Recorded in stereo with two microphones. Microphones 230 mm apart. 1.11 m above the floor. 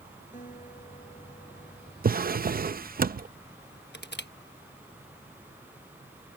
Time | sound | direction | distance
0.3 | a guitar | 35° left (ahead or behind) | ?
2.0 | a drawer | 45° right (ahead or behind) | ?
3.9 | crushing | 50° left (ahead or behind) | ?